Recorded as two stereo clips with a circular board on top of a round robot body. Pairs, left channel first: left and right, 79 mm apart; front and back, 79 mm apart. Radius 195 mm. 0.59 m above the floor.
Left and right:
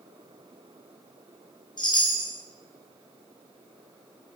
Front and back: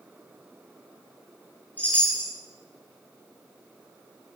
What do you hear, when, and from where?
1.8 s a chime: 70° left, 3 m